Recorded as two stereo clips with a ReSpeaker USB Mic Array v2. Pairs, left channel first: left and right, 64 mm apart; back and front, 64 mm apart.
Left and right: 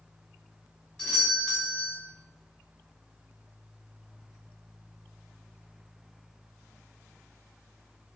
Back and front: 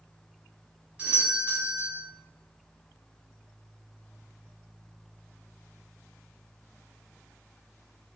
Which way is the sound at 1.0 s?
40° left.